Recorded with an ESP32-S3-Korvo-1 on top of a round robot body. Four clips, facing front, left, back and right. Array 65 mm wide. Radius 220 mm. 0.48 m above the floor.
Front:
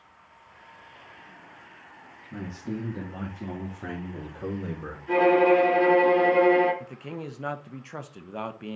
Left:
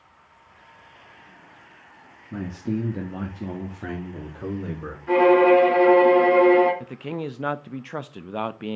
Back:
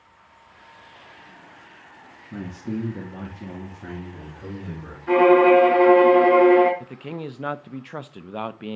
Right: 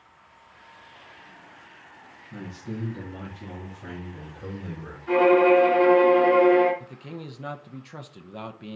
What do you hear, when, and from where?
2.3 s a man speaking: 115° left, 1.8 m; by 5.0 s 55° left, 3 m
5.1 s a violin: 170° left, 3 m
6.8 s a man speaking: 115° left, 0.8 m